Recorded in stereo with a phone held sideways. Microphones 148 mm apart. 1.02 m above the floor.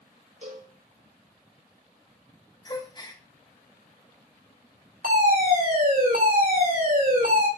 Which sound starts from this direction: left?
A gasp, at 2.6 s.